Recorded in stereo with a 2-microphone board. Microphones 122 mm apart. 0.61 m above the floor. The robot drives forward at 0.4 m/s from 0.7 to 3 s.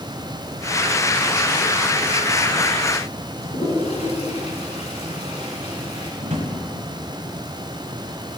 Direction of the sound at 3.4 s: 65° left (ahead or behind).